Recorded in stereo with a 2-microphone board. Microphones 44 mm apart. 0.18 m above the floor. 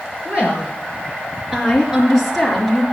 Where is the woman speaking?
30° right (ahead or behind), 3 m; by 2.8 s centre (ahead or behind), 3 m.